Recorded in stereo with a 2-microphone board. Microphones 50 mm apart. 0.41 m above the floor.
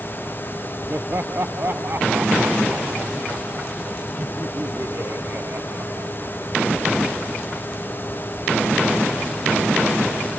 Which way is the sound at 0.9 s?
50° right (ahead or behind).